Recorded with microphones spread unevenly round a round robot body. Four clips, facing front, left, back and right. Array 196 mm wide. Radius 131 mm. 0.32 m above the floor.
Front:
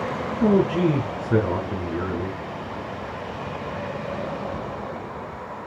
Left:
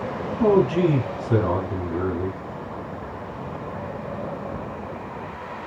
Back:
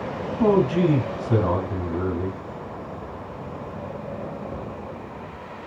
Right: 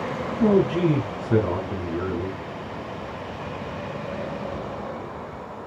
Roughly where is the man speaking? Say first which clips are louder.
Left 2 dB, back 1 dB; behind.